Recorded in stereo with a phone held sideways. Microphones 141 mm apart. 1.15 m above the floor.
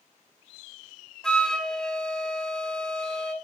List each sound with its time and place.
1.2 s a flute: 5° left (ahead or behind), 1.6 m